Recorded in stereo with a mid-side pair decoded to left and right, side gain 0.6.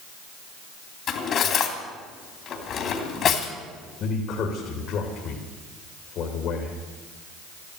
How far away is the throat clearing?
I don't hear throat clearing.